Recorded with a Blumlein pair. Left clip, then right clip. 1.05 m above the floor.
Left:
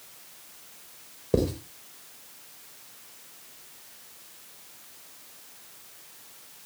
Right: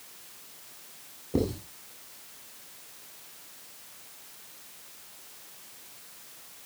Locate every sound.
1.3 s writing: 40° left, 4 m